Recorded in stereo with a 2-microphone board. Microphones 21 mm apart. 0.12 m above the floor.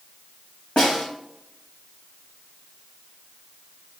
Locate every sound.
0.8 s a snare drum: 70° left (ahead or behind), 2.0 m